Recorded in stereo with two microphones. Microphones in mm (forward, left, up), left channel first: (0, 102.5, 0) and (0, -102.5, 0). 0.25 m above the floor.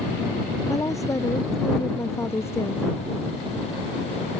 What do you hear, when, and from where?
0.7 s a woman speaking: 15° left (ahead or behind); by 2.8 s 10° left (ahead or behind)